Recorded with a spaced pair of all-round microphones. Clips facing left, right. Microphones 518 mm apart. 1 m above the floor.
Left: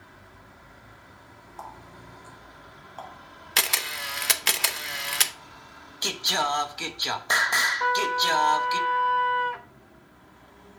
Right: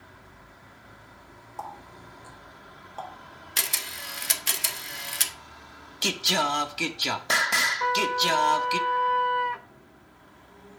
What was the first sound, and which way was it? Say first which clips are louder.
A running tap: right 2 dB; 60° right (ahead or behind).